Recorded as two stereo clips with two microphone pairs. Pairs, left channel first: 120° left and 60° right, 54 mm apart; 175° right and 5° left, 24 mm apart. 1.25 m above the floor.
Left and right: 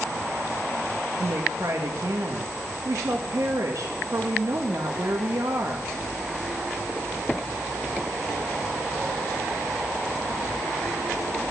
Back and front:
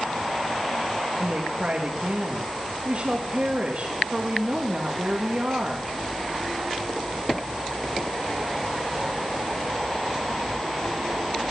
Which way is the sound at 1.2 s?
40° right.